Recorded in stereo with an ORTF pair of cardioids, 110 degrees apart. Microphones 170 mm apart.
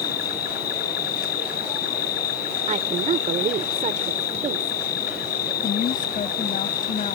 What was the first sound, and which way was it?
An insect, 65° left.